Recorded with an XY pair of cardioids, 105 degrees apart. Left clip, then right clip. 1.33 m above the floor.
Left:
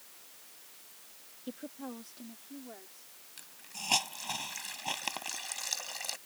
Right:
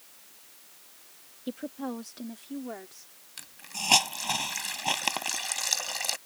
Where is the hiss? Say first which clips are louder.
Right 8 dB; 45° right.